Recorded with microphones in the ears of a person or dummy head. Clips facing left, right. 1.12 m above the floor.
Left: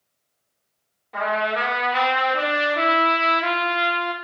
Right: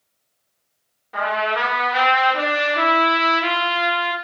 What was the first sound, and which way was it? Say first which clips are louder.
A trumpet: right 1 dB; centre (ahead or behind).